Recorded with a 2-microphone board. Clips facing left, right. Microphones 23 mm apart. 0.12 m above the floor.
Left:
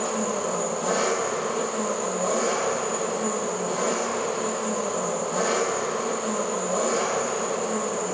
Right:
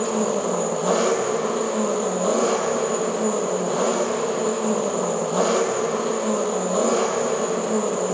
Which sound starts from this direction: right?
An engine running, at 0.0 s.